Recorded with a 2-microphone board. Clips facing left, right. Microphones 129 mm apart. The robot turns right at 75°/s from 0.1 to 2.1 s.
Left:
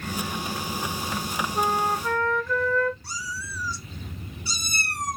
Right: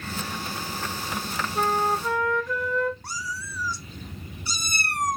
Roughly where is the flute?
Behind.